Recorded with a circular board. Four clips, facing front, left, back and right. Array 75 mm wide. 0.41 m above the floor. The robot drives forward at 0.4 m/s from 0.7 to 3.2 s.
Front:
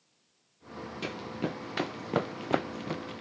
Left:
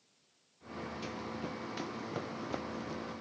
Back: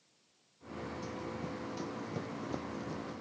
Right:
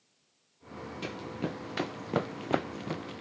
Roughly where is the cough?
No cough in this recording.